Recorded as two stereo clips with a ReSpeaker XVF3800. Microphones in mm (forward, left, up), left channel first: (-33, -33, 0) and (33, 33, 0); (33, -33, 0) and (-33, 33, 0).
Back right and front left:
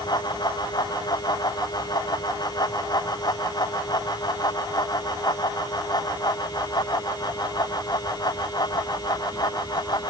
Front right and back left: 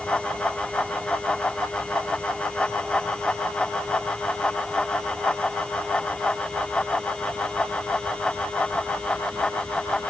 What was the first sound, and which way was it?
Only background noise.